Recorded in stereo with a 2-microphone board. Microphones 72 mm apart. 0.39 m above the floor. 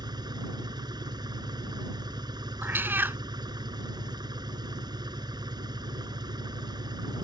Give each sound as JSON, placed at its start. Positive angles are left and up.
{"t": 0.0, "sound": "an engine running", "side_deg": -80}
{"t": 2.6, "sound": "a cat meowing", "side_deg": -30}